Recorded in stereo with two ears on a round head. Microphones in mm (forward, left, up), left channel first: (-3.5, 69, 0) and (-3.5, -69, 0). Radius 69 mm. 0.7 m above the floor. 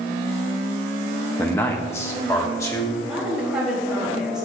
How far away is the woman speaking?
About 3 m.